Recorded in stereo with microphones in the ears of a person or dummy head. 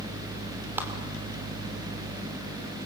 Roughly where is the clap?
Centre.